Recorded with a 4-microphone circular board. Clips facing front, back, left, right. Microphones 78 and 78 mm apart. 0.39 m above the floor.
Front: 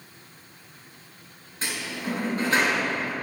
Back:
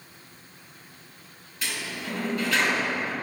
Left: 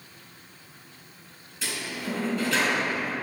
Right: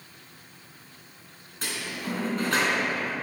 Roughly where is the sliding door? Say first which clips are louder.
Front 2 dB, left 1 dB; ahead right.